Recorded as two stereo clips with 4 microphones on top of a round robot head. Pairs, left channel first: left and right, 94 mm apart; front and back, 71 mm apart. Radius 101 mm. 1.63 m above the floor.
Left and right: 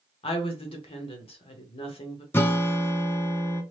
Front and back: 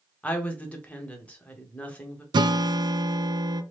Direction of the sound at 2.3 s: 160° left.